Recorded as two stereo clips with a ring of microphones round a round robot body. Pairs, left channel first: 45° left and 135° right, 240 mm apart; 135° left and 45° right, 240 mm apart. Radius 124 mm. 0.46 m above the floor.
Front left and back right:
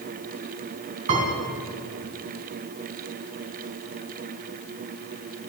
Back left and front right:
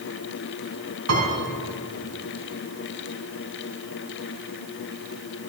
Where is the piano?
75° right, 3 m.